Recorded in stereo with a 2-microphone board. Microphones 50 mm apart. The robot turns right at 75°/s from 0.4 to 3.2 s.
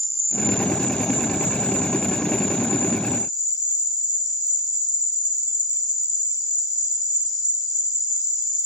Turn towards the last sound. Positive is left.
turn(degrees=-20)